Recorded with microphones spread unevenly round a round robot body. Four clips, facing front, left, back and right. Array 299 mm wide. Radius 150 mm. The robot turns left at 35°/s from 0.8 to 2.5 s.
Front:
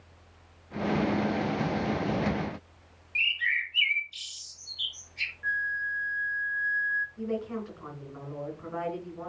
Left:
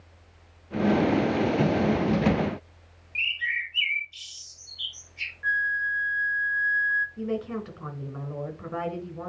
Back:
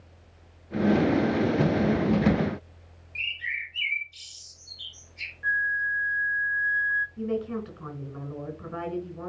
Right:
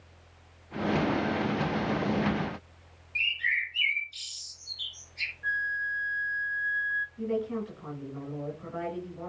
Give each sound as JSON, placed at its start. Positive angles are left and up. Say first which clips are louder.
{"t": 3.1, "sound": "a bird", "louder": "even, front 4 dB", "azimuth_deg": -10, "distance_m": 1.7}
{"t": 5.4, "sound": "a flute", "louder": "left 5 dB, back 4 dB", "azimuth_deg": 165, "distance_m": 0.5}
{"t": 7.2, "sound": "a woman speaking", "louder": "even, back 3 dB", "azimuth_deg": 115, "distance_m": 4.0}